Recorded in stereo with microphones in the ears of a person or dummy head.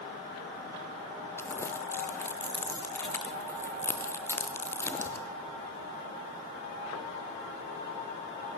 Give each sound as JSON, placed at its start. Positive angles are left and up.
{"t": 1.4, "sound": "crumpling", "side_deg": 15, "distance_m": 0.7}